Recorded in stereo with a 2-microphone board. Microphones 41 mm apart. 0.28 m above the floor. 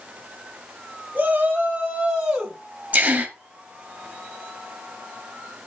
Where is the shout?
40° right (ahead or behind), 1.6 m; by 2.6 s 5° right (ahead or behind), 2 m.